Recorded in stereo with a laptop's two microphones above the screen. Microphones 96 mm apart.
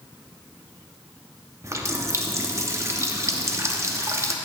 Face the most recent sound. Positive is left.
turn(degrees=-30)  # may be behind; listen again after turning